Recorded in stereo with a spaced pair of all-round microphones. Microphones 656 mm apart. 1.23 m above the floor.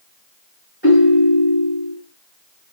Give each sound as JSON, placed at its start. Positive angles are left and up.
{"t": 0.8, "sound": "a ringtone", "side_deg": 15, "distance_m": 1.7}